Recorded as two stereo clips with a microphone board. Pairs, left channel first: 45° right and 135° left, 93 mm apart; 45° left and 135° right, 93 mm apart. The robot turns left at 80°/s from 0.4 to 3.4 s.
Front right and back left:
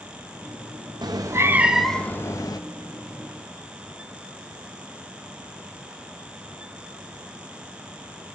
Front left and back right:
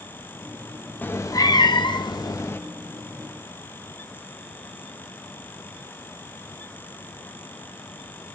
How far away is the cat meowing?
About 0.6 m.